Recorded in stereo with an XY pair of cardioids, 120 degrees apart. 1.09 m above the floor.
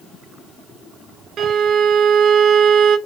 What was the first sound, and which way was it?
A violin, 50° right.